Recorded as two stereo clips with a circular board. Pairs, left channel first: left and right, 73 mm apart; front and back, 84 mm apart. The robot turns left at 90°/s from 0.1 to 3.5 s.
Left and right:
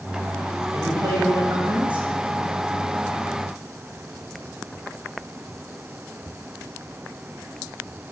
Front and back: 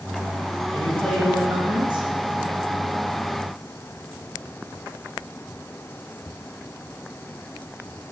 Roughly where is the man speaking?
Ahead right.